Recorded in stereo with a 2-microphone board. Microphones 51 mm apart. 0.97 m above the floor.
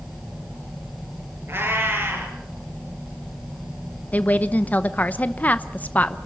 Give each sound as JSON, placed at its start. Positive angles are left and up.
{"t": 1.5, "sound": "a cat meowing", "side_deg": -55, "distance_m": 6.0}
{"t": 4.1, "sound": "a woman speaking", "side_deg": 30, "distance_m": 0.8}